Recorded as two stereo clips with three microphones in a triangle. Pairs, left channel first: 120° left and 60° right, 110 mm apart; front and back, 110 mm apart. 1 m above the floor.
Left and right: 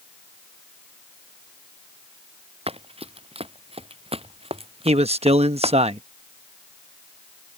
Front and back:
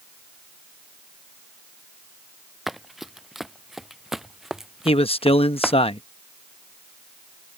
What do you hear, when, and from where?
2.7 s running footsteps: 90° right; by 5.8 s 95° right
4.8 s a man speaking: 35° right